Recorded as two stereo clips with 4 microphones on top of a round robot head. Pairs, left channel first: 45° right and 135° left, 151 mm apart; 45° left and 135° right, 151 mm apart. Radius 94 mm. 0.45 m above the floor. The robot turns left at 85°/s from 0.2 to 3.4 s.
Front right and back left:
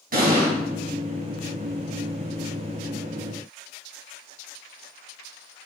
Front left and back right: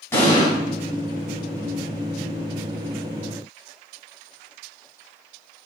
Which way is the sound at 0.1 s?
115° left.